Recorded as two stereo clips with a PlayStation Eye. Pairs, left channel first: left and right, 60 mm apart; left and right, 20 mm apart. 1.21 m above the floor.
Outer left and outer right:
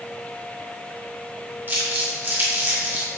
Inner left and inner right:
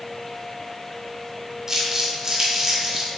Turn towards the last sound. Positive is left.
turn(degrees=-30)  # may be behind; listen again after turning